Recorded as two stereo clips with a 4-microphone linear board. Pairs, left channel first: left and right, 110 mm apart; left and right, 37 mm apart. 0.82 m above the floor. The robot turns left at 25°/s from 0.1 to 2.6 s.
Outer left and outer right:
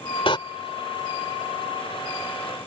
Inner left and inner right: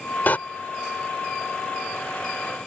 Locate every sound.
0.3 s a door slam: 55° left (ahead or behind); by 0.4 s 50° left (ahead or behind)